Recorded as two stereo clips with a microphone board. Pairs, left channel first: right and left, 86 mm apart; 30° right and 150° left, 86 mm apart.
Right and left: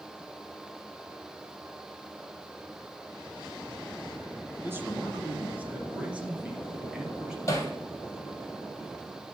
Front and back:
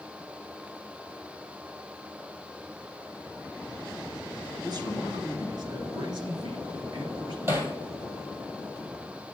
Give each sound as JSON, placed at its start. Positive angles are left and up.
{"t": 4.6, "sound": "a man speaking", "azimuth_deg": 145, "distance_m": 2.0}
{"t": 7.5, "sound": "hammering", "azimuth_deg": -145, "distance_m": 2.0}